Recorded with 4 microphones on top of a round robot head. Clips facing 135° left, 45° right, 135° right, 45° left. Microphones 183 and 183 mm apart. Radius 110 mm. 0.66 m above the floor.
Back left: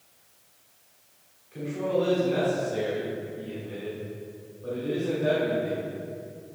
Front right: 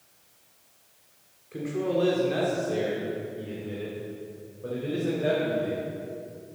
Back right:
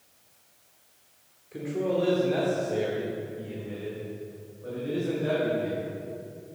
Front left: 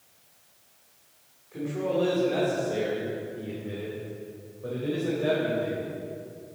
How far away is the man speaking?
About 2 m.